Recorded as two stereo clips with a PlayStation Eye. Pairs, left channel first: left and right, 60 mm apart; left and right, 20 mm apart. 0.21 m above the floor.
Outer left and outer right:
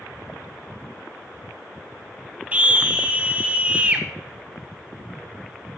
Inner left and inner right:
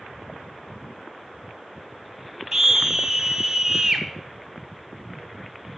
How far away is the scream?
About 1.1 m.